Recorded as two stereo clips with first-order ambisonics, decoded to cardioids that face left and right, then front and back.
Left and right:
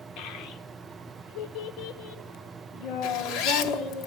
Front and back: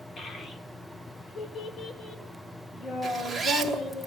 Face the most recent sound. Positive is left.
turn(degrees=90)